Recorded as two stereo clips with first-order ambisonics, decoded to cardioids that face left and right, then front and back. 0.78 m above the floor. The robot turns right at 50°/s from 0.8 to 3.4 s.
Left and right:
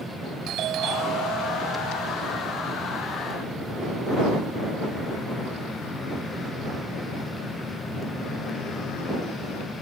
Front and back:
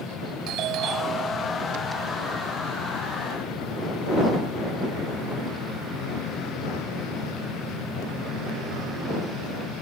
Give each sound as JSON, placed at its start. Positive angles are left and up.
{"t": 0.5, "sound": "a doorbell", "azimuth_deg": -140}